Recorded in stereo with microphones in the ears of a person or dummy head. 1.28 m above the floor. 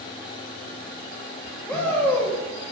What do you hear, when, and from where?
1.7 s a shout: 10° left (ahead or behind), 2 m